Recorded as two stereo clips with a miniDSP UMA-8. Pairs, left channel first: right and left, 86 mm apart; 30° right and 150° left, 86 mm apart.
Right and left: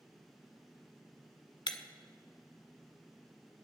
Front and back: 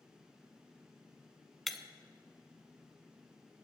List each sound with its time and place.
1.7 s breaking glass: 120° right, 0.8 m